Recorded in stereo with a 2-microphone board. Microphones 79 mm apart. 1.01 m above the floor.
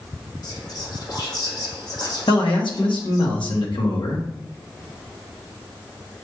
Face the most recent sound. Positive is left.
turn(degrees=80)